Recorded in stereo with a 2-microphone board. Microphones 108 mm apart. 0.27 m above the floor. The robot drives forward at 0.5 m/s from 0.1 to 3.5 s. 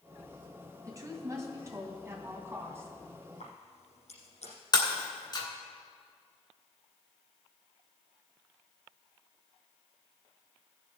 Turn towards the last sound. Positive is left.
turn(degrees=40)  # may be behind; listen again after turning